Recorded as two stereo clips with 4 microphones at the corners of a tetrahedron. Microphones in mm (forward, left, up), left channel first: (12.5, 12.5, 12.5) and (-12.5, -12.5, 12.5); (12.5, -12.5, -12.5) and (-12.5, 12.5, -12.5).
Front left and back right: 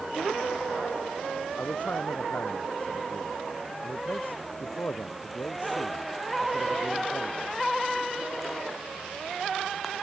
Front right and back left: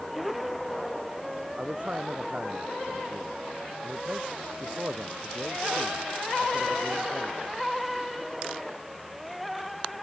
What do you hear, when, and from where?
1.6 s a man speaking: 80° left